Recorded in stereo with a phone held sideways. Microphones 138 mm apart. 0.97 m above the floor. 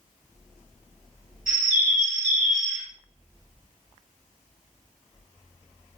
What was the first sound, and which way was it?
A bird, 80° right.